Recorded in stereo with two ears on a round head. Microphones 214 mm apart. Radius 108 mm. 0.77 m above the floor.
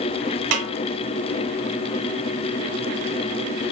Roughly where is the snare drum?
Right.